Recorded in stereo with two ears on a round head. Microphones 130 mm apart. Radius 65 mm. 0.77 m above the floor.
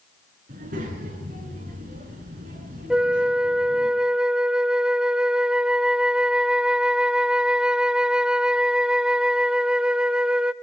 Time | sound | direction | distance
0.5 | a child speaking | 60° right (ahead or behind) | 6.5 m
2.9 | a flute | 5° right (ahead or behind) | 0.5 m